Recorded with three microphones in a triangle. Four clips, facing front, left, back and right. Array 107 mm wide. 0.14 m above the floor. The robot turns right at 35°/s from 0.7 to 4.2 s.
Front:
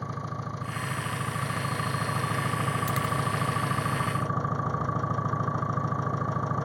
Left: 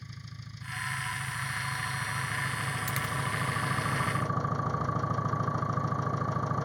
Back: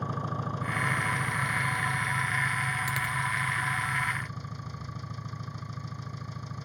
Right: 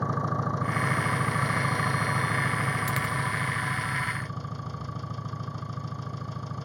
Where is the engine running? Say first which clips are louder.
Right 21 dB, back 2 dB; 95° right; by 6.7 s 30° left.